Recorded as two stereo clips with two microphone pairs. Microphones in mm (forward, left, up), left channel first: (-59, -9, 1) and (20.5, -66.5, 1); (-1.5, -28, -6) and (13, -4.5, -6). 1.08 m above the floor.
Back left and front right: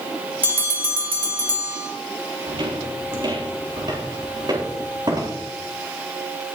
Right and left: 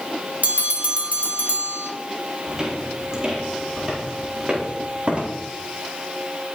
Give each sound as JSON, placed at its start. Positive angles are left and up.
{"t": 0.4, "sound": "a bell", "azimuth_deg": 30, "distance_m": 1.4}
{"t": 2.5, "sound": "footsteps", "azimuth_deg": -10, "distance_m": 4.0}